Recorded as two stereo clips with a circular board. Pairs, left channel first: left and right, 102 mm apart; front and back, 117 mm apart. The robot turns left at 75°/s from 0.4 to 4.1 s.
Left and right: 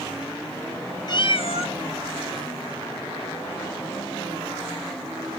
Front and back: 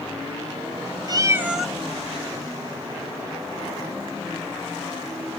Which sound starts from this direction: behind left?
A cat meowing, at 1.1 s.